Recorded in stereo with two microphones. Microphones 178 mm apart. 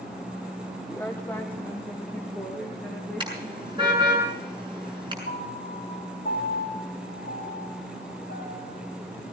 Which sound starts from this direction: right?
A car horn, at 3.2 s.